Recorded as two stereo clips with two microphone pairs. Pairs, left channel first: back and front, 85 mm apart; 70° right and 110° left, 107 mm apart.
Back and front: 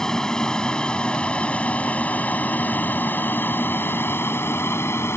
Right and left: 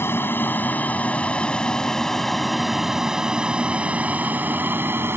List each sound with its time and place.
0.0 s an aircraft: 105° right; by 5.2 s 155° left